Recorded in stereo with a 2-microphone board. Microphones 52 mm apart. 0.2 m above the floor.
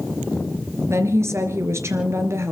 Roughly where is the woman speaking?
Right.